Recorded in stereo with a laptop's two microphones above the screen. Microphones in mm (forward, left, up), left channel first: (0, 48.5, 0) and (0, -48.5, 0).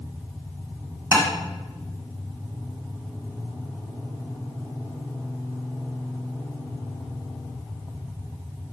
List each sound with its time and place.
1.1 s tapping: 25° right (ahead or behind), 1.9 m